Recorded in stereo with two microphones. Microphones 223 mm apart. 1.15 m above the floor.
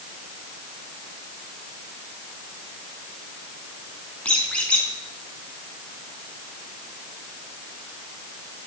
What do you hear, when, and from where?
4.2 s a squeak: 5° left (ahead or behind), 4 m